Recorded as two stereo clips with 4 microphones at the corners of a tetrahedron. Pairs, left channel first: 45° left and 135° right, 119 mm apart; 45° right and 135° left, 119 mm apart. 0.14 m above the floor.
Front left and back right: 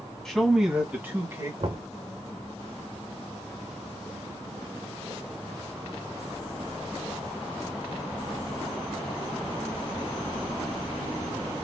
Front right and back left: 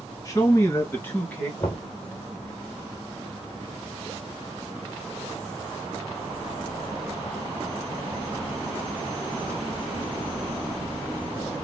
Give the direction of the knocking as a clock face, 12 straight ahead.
4 o'clock.